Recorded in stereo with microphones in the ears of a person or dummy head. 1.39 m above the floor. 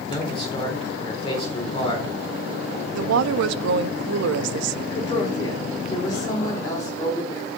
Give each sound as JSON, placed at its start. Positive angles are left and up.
{"t": 0.1, "sound": "a man speaking", "side_deg": 25, "distance_m": 4.0}
{"t": 2.9, "sound": "a woman speaking", "side_deg": -75, "distance_m": 0.5}
{"t": 4.9, "sound": "a woman speaking", "side_deg": 10, "distance_m": 4.0}